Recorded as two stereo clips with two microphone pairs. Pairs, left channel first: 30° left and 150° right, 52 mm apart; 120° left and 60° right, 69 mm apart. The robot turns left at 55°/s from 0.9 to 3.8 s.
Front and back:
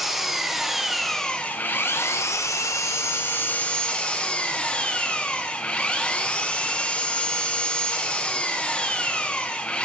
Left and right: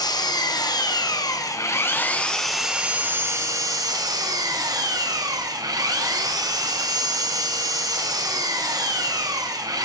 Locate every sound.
0.0 s an engine running: 125° left, 0.8 m; by 9.9 s 35° right, 0.8 m